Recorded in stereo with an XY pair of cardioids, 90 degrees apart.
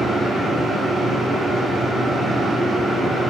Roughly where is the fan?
Ahead right.